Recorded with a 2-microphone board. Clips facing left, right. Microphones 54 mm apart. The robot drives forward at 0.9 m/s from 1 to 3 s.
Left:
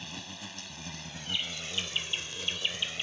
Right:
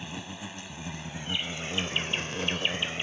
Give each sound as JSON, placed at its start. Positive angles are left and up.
{"t": 0.0, "sound": "an insect", "side_deg": -20}